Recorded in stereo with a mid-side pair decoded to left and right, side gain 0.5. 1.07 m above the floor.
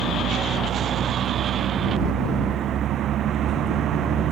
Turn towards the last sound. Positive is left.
turn(degrees=-60)